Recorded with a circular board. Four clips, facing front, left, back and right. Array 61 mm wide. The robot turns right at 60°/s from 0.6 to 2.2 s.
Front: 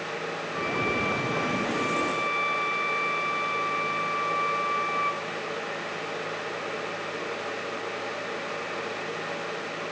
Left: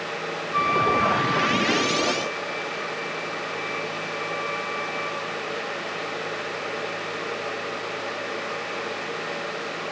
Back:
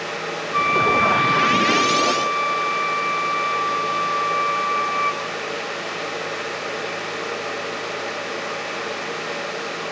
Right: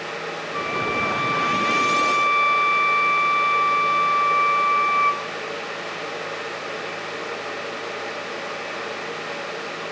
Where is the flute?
155° left, 1.6 m; by 5.3 s 105° right, 1.6 m.